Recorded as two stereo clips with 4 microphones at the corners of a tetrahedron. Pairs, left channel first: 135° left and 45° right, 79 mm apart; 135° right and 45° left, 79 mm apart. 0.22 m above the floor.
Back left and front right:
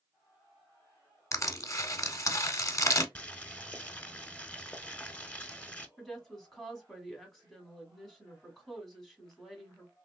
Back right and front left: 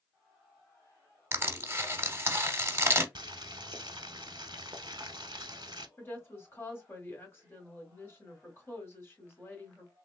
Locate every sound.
1.3 s crushing: 95° left, 0.7 m
3.1 s boiling: 65° left, 0.6 m
6.0 s a woman speaking: 145° right, 1.3 m